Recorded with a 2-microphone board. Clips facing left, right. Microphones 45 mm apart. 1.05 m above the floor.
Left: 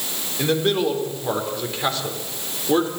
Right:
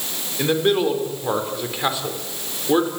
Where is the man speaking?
10° right (ahead or behind), 4 m.